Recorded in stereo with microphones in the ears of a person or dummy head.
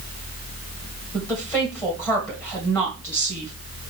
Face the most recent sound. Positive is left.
turn(degrees=15)  # may be behind; listen again after turning